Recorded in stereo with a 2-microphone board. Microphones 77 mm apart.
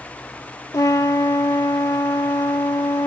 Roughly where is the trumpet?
Left.